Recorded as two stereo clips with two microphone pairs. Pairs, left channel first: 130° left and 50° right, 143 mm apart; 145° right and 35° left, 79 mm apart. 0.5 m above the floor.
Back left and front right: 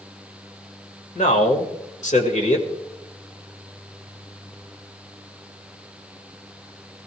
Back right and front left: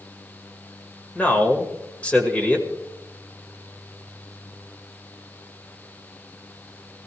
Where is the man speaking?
145° left, 2 m.